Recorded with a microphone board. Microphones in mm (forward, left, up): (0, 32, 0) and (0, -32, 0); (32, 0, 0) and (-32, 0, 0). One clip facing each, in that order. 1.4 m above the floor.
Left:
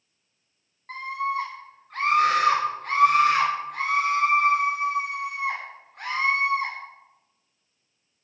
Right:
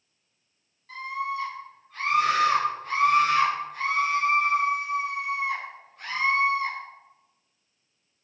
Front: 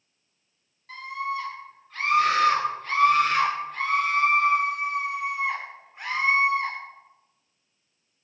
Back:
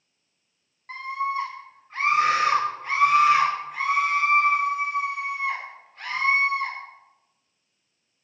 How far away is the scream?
About 5 m.